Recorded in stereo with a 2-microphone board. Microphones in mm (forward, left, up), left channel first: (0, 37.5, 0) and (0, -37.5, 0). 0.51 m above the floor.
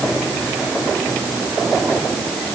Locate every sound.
Only background noise.